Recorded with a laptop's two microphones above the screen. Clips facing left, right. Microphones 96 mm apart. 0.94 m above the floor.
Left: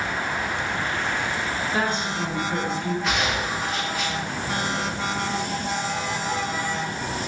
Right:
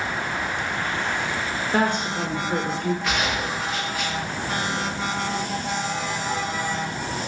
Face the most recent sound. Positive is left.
turn(degrees=0)  # may be behind; listen again after turning